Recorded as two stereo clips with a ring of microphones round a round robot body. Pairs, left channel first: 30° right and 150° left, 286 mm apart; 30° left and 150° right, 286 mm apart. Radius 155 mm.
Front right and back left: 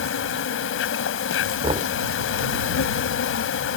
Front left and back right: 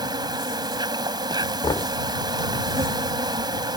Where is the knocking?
95° left.